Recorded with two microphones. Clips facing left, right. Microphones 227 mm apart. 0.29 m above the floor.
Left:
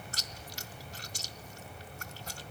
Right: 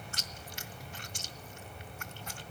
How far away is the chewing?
About 1.4 m.